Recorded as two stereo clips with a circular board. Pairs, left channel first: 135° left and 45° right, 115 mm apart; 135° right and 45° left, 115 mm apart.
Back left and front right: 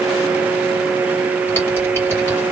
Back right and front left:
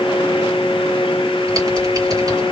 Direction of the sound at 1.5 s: 80° left.